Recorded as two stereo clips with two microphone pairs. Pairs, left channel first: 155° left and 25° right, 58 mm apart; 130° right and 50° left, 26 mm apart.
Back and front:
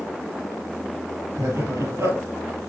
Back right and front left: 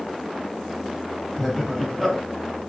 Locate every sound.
1.4 s laughter: 40° right, 3.5 m